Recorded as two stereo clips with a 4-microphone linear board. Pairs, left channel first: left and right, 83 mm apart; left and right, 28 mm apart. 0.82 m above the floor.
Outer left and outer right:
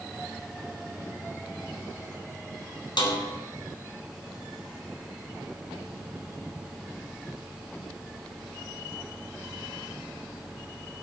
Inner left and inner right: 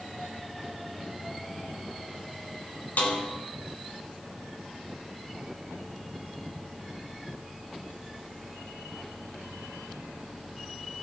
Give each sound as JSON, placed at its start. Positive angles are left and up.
{"t": 3.0, "sound": "a snare drum", "side_deg": 70, "distance_m": 3.0}